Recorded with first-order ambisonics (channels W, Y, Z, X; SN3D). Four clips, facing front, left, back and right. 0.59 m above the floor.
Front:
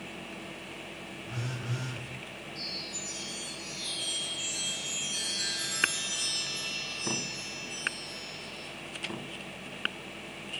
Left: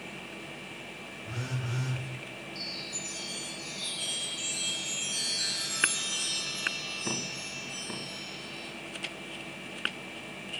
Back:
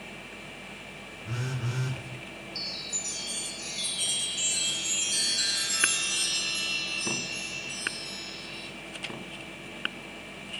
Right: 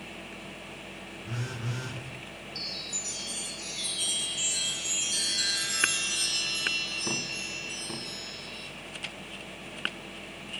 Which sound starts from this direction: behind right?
A chime, at 2.5 s.